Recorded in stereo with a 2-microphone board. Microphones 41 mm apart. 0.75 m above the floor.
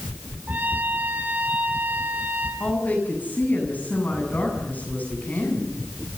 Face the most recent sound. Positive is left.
turn(degrees=45)  # may be behind; listen again after turning